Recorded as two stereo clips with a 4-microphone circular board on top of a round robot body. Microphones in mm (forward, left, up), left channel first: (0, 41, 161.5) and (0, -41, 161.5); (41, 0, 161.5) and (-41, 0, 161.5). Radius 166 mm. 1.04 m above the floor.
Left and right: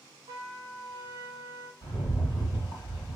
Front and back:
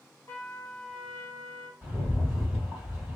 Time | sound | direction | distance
0.3 | a trumpet | 65° right | 0.8 m
1.8 | a rattle | 105° left | 1.7 m